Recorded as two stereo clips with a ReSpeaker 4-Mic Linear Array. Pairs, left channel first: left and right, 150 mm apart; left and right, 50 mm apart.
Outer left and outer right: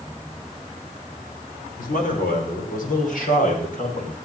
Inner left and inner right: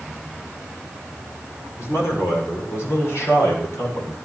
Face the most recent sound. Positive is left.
turn(degrees=60)  # may be behind; listen again after turning